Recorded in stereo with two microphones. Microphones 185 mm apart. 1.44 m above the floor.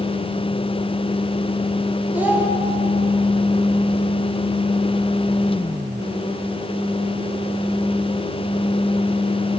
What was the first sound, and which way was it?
A child speaking, 10° right (ahead or behind).